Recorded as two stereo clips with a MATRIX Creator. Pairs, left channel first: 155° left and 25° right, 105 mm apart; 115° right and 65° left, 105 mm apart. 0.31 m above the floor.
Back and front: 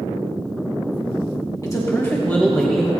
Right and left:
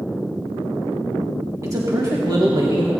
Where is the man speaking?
115° left, 1.7 m; by 2.9 s 70° left, 1.5 m.